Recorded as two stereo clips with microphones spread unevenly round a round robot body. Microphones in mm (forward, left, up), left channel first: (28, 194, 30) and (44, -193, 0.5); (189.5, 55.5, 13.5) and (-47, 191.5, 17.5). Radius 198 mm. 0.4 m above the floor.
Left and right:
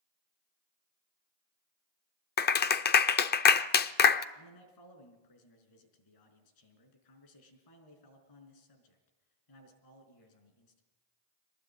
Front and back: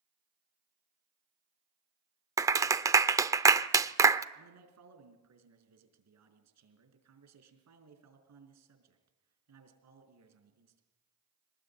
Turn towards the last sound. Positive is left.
turn(degrees=130)